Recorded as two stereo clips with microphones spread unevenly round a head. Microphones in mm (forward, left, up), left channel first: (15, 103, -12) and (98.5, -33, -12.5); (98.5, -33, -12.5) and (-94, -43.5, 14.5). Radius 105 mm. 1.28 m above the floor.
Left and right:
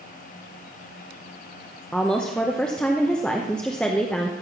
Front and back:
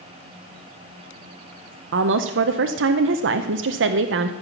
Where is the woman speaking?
150° right, 0.7 m.